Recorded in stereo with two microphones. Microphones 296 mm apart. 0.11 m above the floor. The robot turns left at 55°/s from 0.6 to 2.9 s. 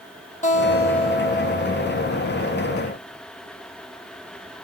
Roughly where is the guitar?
Ahead left.